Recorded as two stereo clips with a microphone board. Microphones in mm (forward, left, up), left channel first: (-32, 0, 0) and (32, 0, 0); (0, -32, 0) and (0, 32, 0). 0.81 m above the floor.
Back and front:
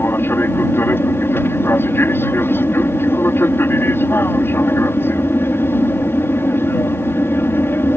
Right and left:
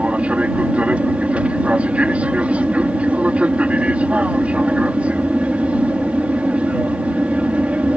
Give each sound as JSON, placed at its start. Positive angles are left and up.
{"t": 0.0, "sound": "an aircraft", "azimuth_deg": 150}